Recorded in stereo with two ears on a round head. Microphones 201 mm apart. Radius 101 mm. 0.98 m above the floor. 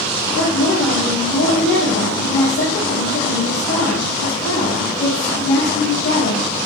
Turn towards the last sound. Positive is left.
turn(degrees=45)  # may be behind; listen again after turning